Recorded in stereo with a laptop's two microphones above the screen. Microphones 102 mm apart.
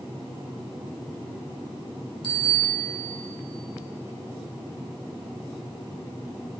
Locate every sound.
2.2 s a bicycle bell: 55° left (ahead or behind), 2.5 m